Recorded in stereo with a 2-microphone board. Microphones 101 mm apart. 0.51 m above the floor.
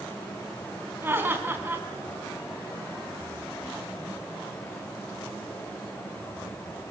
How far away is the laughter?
About 4 m.